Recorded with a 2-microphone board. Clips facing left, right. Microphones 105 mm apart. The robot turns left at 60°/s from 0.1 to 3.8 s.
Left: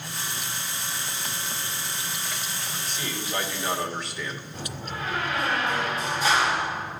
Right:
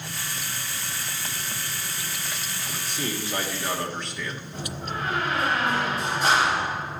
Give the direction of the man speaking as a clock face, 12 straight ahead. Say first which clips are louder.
Right 5 dB; 4 o'clock.